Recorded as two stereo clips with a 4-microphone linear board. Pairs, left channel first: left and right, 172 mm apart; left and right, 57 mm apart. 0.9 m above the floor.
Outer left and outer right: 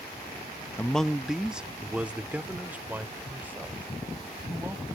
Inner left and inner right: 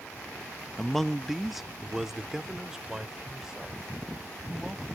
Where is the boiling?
No boiling in this recording.